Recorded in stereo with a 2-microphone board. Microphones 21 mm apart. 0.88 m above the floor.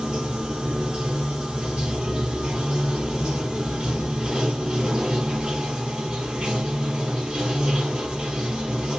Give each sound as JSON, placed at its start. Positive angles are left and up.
{"t": 0.0, "sound": "running water", "side_deg": -50, "distance_m": 1.8}